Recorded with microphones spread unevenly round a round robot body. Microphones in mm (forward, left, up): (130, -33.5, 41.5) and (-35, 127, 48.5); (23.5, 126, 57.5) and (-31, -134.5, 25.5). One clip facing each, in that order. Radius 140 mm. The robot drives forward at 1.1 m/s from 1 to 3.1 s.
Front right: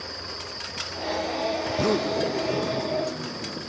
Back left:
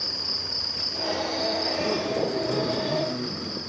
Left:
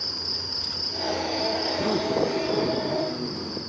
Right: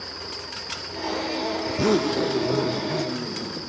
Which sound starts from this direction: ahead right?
A zipper, at 1.6 s.